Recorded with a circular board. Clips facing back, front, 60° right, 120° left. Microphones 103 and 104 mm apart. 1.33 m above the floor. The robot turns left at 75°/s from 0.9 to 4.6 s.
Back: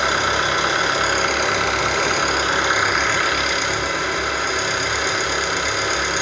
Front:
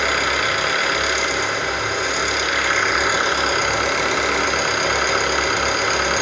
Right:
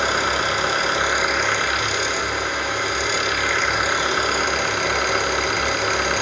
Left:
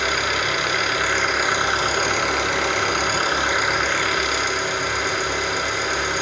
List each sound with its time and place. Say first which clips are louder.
0.0 s an engine running: back 1 dB, right 2 dB; 115° right, 1.2 m; by 6.2 s 35° right, 1.2 m